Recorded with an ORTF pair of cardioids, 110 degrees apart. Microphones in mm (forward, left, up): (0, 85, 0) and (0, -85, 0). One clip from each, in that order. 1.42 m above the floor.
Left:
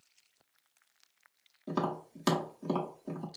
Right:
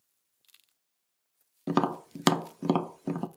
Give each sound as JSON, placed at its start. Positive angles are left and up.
{"t": 1.7, "sound": "tapping", "azimuth_deg": -60, "distance_m": 0.6}